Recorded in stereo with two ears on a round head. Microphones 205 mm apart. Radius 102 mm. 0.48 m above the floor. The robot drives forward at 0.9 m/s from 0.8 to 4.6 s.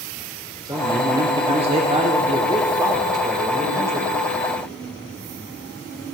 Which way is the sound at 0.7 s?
20° right (ahead or behind).